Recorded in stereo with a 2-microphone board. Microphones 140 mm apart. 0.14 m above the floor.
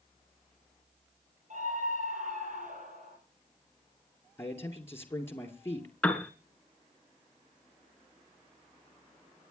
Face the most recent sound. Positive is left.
turn(degrees=10)  # may be behind; listen again after turning